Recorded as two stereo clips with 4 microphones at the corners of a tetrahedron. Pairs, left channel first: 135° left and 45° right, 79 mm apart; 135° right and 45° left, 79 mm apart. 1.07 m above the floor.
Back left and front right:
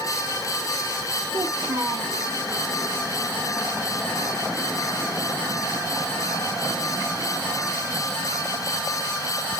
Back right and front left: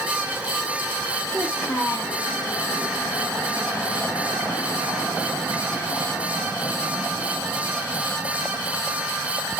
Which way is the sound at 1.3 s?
75° right.